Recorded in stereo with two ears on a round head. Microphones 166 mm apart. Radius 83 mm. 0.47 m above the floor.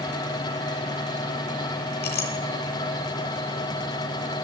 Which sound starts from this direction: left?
A clink, at 2.0 s.